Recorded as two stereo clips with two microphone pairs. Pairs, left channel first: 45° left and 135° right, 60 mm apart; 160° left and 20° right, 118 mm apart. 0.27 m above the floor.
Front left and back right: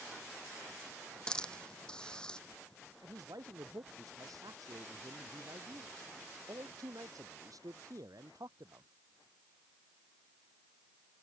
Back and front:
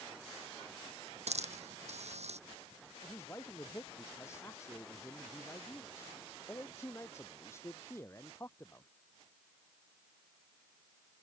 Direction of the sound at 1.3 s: 35° right.